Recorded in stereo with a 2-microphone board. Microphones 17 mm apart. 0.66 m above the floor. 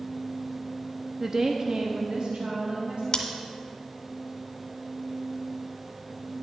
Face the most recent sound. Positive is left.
turn(degrees=40)  # may be behind; listen again after turning